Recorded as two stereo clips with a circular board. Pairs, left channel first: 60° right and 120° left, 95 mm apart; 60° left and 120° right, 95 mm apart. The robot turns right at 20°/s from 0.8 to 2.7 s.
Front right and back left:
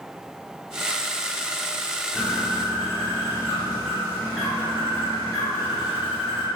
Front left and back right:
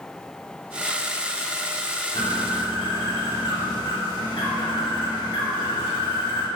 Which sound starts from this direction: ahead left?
A bird, at 2.1 s.